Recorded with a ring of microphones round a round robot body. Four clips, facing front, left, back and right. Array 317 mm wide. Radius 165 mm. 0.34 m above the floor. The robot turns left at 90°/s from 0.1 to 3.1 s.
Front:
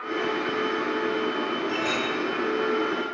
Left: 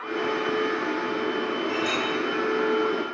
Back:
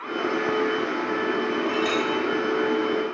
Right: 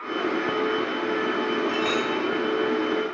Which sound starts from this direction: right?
A clink, at 1.7 s.